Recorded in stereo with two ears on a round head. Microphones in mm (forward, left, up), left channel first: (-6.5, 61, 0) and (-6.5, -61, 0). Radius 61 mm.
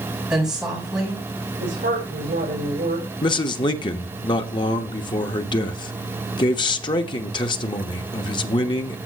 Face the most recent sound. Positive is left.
turn(degrees=35)  # may be behind; listen again after turning